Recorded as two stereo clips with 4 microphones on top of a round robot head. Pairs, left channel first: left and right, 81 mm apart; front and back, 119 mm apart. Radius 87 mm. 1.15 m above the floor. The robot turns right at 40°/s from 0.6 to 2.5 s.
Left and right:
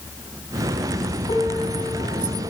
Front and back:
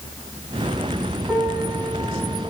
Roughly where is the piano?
Left.